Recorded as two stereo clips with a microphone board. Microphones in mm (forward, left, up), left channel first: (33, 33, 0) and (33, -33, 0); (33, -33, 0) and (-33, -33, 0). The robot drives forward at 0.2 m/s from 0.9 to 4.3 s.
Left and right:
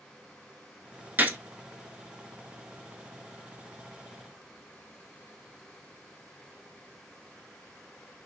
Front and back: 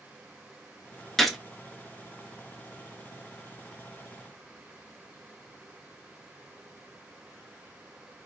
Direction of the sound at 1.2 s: 80° right.